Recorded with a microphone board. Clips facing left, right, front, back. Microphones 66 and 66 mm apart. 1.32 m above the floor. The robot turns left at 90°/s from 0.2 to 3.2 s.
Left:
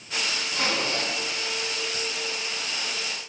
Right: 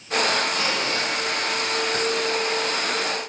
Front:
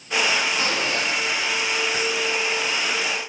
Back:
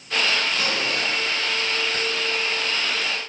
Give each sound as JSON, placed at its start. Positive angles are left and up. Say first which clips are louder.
{"t": 0.5, "sound": "a zipper", "louder": "right 3 dB, front 1 dB", "azimuth_deg": 65, "distance_m": 4.0}